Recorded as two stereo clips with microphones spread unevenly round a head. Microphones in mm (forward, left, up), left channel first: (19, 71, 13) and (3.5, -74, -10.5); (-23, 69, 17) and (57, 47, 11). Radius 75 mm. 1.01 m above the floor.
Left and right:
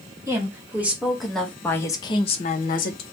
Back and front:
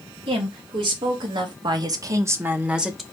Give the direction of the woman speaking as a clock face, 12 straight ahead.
1 o'clock.